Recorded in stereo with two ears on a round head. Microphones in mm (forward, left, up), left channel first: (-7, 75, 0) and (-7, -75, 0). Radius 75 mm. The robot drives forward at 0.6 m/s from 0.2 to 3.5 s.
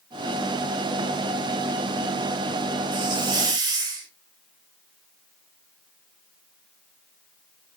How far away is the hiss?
About 3.5 m.